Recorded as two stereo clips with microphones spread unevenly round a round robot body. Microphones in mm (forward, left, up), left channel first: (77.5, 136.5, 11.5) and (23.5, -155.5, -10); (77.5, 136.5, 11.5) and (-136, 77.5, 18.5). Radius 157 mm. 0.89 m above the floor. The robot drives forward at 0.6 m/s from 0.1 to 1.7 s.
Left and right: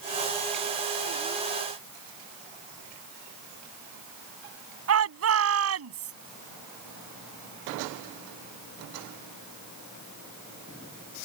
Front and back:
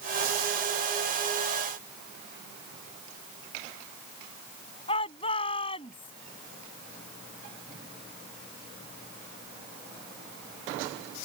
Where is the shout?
60° right.